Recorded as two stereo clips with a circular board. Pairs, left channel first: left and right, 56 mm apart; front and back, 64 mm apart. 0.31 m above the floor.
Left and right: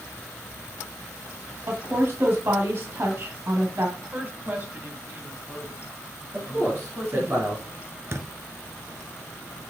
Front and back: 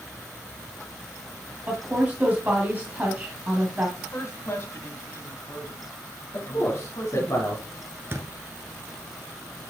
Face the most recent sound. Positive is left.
turn(degrees=-130)